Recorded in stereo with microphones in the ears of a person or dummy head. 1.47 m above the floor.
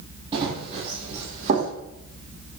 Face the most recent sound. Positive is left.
turn(degrees=-45)  # may be behind; listen again after turning